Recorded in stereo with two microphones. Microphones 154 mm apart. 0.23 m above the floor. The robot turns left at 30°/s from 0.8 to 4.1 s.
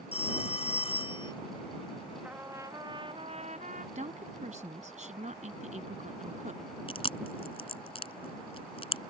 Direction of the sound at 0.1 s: 45° left (ahead or behind).